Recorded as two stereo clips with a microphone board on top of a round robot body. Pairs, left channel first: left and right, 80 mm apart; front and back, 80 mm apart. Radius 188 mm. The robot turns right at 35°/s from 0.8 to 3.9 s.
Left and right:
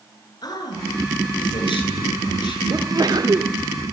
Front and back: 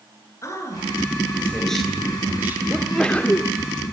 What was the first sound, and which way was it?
A man speaking, 55° left.